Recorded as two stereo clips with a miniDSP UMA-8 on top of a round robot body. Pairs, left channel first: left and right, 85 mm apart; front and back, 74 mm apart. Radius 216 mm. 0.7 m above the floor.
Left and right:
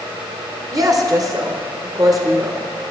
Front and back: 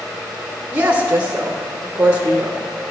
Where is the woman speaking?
120° right, 1.4 m.